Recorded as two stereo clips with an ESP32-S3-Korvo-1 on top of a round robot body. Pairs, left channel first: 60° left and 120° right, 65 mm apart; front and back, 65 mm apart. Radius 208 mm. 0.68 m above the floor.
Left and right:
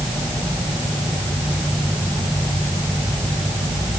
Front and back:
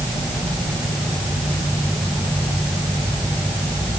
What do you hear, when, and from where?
Only background noise.